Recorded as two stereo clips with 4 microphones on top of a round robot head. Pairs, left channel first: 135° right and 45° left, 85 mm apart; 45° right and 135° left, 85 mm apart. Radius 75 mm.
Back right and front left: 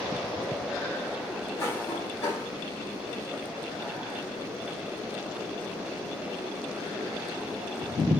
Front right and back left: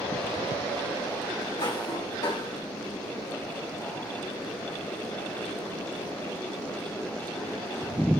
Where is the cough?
80° right, 1.2 m.